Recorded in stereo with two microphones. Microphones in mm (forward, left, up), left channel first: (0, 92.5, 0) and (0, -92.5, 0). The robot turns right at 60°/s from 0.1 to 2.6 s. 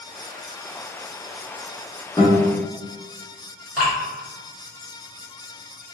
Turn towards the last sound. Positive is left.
turn(degrees=-5)  # may be behind; listen again after turning